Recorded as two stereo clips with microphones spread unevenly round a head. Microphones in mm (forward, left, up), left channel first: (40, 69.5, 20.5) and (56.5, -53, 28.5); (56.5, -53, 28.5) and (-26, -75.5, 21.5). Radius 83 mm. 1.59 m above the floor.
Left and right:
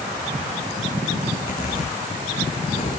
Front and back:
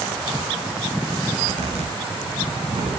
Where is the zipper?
165° left, 6 m.